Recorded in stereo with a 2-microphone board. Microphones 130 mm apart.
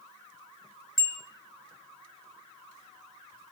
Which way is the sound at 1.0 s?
25° left (ahead or behind).